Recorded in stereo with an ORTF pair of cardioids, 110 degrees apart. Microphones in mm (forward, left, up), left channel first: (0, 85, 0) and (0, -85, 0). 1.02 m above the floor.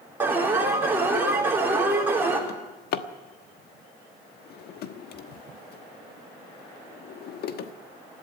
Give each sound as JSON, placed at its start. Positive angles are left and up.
{"t": 0.2, "sound": "an alarm", "azimuth_deg": -15, "distance_m": 5.0}
{"t": 2.5, "sound": "a drawer", "azimuth_deg": 70, "distance_m": 1.2}